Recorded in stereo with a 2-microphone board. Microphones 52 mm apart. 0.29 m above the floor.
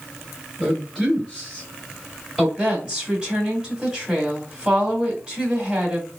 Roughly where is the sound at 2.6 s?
Right.